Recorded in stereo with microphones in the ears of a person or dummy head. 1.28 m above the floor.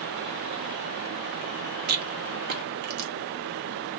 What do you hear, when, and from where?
1.9 s a rattle: 60° right (ahead or behind), 1.2 m